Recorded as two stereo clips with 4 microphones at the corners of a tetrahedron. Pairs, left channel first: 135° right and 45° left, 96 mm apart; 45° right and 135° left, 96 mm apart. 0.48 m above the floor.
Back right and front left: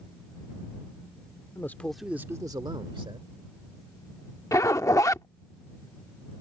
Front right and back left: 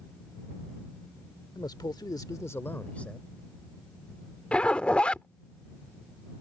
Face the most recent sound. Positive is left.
turn(degrees=-115)